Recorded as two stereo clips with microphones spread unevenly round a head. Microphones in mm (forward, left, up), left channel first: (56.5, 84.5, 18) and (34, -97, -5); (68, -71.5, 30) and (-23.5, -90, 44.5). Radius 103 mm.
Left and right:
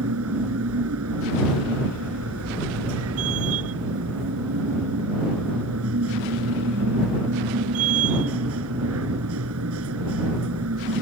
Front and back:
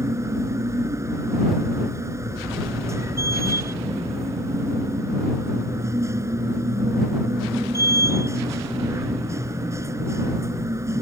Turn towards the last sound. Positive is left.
turn(degrees=-110)